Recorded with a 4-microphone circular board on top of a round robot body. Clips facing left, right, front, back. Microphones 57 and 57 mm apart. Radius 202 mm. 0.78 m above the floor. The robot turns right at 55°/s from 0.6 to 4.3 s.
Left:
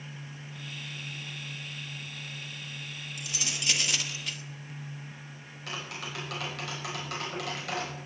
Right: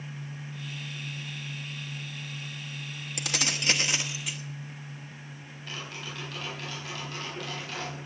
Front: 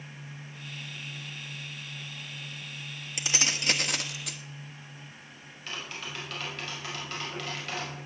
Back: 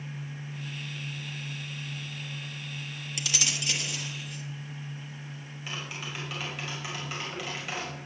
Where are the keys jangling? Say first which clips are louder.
Right 6 dB, front 2 dB; 65° right, 1.1 m; by 4.4 s 5° right, 1.1 m.